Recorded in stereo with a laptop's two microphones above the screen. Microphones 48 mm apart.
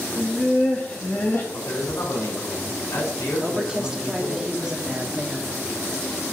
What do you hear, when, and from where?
0.2 s laughter: 15° left (ahead or behind), 1.2 m; by 1.4 s 50° left (ahead or behind), 1.4 m
1.5 s a man speaking: 85° left, 3.5 m
3.4 s a woman speaking: 15° right (ahead or behind), 1.6 m